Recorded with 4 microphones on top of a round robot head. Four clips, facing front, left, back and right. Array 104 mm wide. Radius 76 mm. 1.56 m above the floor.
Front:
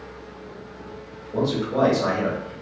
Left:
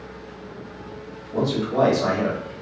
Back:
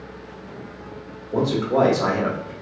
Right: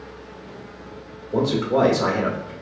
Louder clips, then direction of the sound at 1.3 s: Right 2 dB, back 3 dB; 140° right.